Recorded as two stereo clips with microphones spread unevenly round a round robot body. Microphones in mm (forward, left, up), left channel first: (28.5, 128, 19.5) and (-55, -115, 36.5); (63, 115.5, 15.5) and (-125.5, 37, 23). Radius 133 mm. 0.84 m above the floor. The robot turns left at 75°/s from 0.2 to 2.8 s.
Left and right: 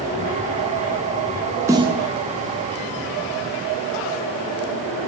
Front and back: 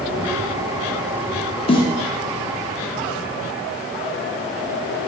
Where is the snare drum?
30° right, 0.5 m; by 2.0 s 50° right, 0.5 m.